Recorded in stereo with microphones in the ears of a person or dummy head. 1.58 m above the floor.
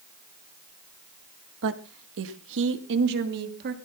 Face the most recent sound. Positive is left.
turn(degrees=-55)  # may be behind; listen again after turning